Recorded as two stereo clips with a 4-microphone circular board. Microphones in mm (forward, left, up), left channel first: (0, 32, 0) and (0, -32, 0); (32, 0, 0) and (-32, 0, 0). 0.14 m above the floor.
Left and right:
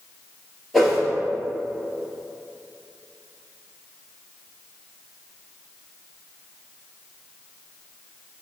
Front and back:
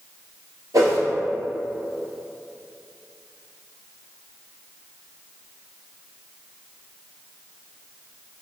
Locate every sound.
0.7 s a whoosh: 175° right, 1.2 m